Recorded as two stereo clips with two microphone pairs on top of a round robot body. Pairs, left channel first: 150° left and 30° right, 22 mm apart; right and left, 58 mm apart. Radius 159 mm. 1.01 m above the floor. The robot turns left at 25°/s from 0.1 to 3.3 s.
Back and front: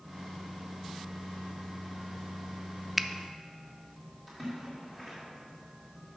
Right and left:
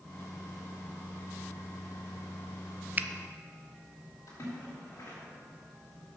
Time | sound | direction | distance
3.0 | a finger snap | 35° left | 0.5 m
4.3 | a splash | 120° right | 2.5 m